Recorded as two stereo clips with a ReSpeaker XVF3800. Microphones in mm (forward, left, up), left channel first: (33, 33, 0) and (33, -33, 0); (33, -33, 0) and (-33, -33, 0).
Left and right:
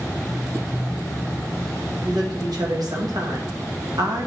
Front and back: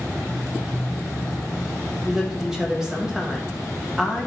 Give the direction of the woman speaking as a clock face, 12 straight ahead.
3 o'clock.